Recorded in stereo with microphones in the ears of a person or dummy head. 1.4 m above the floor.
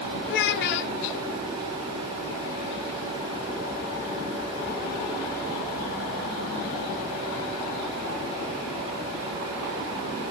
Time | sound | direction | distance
0.3 | a child speaking | 65° left (ahead or behind) | 0.6 m